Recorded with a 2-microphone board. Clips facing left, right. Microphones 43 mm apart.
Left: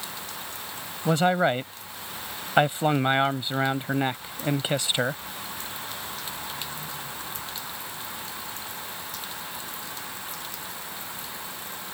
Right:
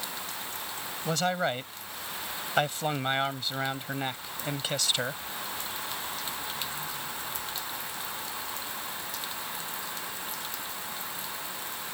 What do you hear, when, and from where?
1.1 s a man speaking: 25° left (ahead or behind)